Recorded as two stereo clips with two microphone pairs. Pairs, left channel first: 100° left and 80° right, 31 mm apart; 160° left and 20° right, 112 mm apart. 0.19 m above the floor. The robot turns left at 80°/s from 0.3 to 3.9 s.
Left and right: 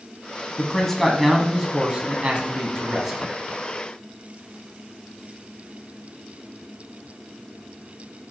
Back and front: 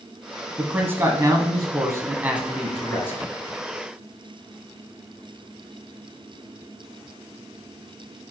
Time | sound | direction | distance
0.6 | a man speaking | 55° left | 1.1 m